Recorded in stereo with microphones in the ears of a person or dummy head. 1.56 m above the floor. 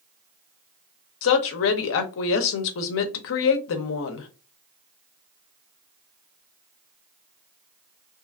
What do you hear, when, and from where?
1.2 s a woman speaking: 70° left (ahead or behind), 0.7 m